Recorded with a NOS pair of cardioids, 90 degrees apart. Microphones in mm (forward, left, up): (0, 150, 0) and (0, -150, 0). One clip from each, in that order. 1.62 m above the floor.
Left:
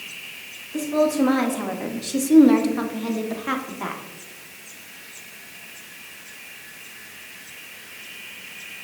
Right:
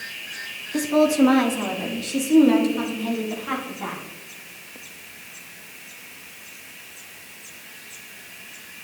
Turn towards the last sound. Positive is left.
turn(degrees=40)